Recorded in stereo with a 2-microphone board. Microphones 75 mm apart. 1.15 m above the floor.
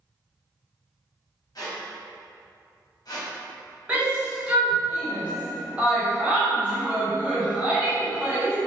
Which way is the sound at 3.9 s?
20° right (ahead or behind).